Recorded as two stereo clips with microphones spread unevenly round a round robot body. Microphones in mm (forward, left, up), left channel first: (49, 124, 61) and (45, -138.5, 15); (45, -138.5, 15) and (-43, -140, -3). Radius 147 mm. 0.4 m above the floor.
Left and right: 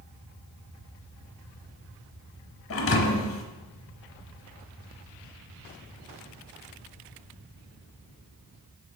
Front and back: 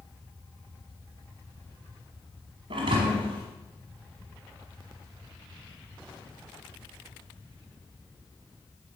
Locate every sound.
2.7 s a thud: 135° left, 0.9 m